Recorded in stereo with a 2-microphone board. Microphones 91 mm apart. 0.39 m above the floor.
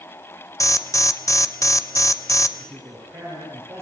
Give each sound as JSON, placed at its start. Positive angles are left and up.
{"t": 0.6, "sound": "an alarm", "side_deg": 35, "distance_m": 1.3}
{"t": 2.6, "sound": "a man speaking", "side_deg": -30, "distance_m": 10.0}